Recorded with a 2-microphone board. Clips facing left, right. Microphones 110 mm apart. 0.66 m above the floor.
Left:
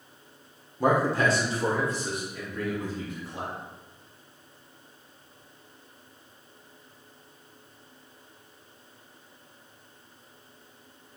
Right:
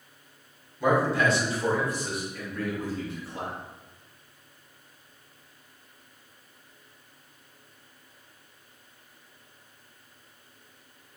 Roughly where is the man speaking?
Left.